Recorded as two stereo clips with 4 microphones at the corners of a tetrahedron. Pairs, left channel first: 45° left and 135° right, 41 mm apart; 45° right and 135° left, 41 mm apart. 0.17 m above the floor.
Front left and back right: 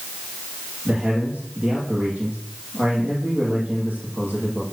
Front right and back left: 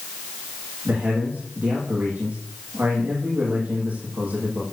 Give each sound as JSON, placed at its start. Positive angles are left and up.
{"t": 0.8, "sound": "a man speaking", "azimuth_deg": 175, "distance_m": 6.5}